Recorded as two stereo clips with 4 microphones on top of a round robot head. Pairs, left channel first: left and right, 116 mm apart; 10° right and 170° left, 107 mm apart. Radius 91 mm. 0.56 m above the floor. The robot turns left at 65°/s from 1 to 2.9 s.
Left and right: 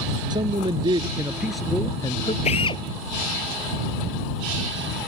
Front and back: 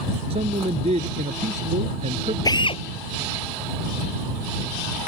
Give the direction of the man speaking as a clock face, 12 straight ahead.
5 o'clock.